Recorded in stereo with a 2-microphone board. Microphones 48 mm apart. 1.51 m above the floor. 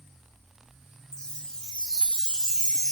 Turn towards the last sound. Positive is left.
turn(degrees=15)  # may be behind; listen again after turning